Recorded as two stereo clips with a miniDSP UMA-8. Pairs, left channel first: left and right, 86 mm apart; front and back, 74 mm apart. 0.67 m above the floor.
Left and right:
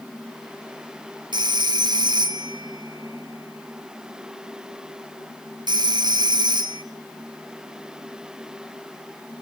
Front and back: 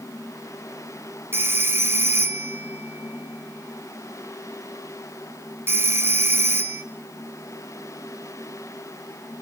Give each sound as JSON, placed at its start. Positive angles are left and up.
{"t": 1.3, "sound": "a phone ringing", "azimuth_deg": -120, "distance_m": 1.9}